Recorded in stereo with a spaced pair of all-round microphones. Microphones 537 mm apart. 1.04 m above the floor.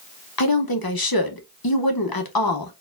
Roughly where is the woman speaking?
Left.